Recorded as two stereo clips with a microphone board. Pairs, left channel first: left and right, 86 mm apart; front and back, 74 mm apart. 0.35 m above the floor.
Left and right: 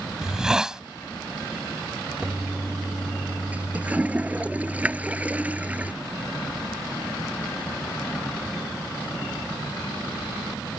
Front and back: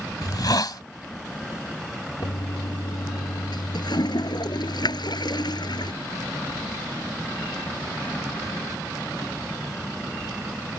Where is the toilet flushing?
15° right.